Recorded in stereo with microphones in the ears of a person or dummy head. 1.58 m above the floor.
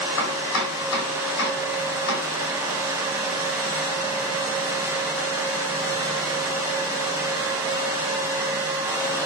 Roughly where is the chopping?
Left.